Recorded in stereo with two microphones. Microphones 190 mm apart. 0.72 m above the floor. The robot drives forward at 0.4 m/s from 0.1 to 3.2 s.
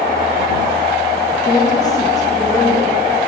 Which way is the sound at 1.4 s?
25° left (ahead or behind).